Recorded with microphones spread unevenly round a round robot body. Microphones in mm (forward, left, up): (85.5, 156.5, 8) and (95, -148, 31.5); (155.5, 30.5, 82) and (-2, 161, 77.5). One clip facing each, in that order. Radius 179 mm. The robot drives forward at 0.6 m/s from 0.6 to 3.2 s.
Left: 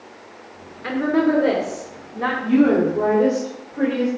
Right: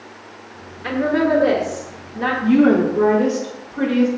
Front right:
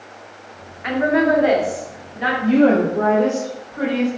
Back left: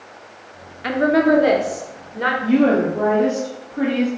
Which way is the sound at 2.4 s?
145° right.